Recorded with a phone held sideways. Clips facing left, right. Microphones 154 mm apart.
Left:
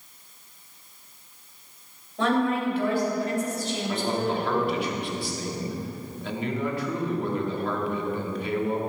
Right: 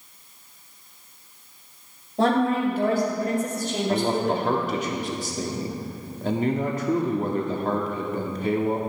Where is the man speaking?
40° right (ahead or behind), 1.6 m.